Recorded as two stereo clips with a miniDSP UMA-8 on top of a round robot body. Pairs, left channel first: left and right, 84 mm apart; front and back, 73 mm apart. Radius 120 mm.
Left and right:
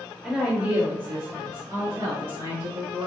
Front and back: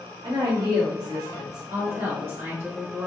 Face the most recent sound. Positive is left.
turn(degrees=-120)